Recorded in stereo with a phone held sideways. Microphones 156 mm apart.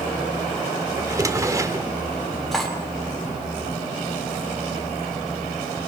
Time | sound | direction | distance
1.0 | a drawer | 20° right (ahead or behind) | 1.1 m
2.5 | cutlery clinking | centre (ahead or behind) | 3.5 m